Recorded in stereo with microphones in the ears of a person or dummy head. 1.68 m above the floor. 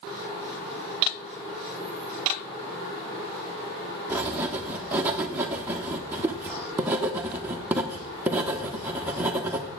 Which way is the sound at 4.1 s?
5° right (ahead or behind).